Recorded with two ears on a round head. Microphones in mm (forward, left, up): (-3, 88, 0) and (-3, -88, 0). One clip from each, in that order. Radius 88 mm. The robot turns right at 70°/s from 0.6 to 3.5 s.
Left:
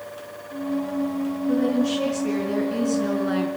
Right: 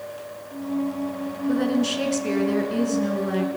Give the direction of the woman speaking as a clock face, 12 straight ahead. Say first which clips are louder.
Even; 3 o'clock.